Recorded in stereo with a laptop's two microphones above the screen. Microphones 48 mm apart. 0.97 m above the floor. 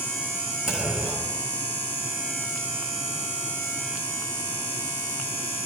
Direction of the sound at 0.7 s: 15° right (ahead or behind).